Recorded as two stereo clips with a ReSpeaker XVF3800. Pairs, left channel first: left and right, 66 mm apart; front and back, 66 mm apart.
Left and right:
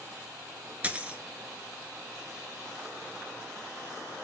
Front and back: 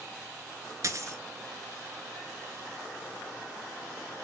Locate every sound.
0.8 s a dropped coin: 155° right, 0.8 m